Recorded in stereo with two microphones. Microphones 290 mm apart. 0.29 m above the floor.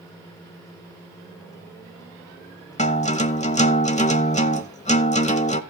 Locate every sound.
2.8 s a guitar: 25° left (ahead or behind), 0.9 m